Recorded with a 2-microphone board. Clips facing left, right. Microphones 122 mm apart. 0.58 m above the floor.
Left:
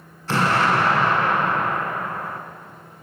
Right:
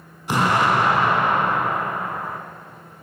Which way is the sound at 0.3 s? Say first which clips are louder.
Right 1 dB; 15° right (ahead or behind).